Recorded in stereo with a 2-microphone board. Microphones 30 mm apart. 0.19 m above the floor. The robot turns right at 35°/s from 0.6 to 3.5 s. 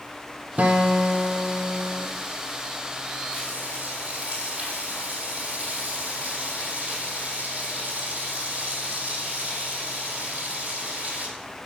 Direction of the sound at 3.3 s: 45° right (ahead or behind).